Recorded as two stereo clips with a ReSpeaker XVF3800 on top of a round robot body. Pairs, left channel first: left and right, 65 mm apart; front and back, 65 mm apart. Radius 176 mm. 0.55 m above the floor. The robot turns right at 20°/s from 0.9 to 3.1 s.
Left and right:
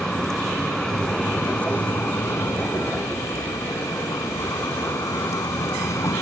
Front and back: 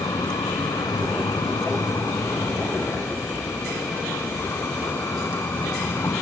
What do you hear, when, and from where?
0.0 s a vehicle: 10° left; by 6.2 s 55° left